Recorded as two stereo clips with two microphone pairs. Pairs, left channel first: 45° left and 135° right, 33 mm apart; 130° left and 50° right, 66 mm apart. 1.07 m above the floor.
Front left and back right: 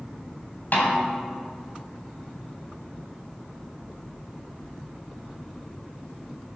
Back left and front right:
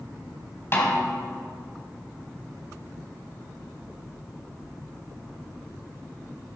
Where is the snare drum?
75° left, 3.5 m.